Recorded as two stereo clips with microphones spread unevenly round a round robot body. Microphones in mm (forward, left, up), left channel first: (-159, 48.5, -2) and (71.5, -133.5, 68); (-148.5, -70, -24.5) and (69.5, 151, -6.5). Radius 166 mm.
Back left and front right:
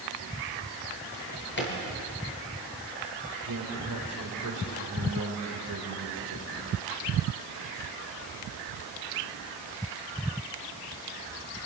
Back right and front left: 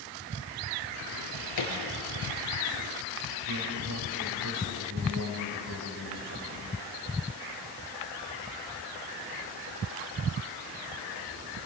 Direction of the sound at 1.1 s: 165° right.